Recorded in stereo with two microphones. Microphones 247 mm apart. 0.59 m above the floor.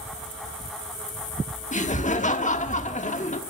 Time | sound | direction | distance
1.7 | laughter | 30° left (ahead or behind) | 1.2 m